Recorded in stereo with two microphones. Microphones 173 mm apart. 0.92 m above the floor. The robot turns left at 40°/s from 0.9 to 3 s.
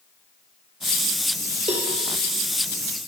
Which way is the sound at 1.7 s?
40° right (ahead or behind).